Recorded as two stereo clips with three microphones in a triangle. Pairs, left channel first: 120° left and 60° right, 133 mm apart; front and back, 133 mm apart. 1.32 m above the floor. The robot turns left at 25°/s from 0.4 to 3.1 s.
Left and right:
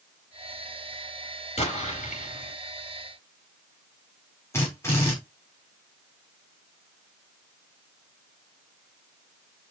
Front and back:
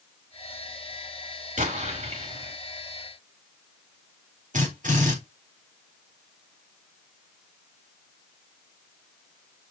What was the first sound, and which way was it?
An explosion, 160° left.